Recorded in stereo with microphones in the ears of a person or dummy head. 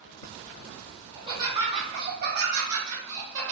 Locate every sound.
1.1 s laughter: 20° right (ahead or behind), 1.5 m; by 3.5 s 70° right (ahead or behind), 1.3 m